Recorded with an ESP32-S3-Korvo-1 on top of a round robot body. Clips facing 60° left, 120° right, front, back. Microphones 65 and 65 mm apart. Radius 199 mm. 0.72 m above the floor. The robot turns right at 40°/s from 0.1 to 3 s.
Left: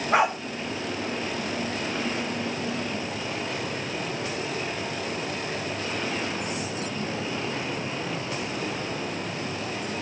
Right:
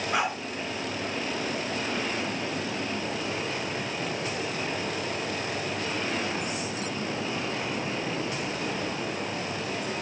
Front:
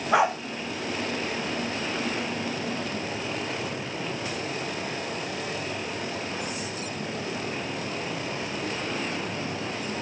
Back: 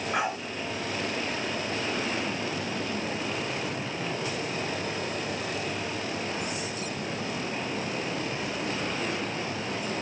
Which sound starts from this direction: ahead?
A dog barking, at 0.1 s.